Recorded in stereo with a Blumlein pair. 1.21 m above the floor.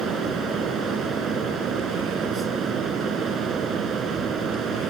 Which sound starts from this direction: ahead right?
A fan, at 0.0 s.